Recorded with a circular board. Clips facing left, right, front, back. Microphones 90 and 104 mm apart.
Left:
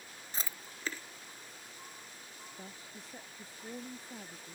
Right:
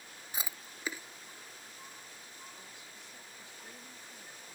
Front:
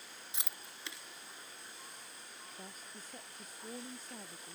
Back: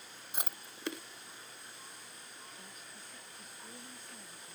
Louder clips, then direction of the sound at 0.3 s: Right 1 dB, back 8 dB; 165° right.